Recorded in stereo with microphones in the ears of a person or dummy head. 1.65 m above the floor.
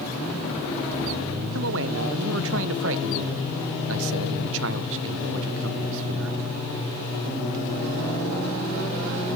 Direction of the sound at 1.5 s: 70° right (ahead or behind).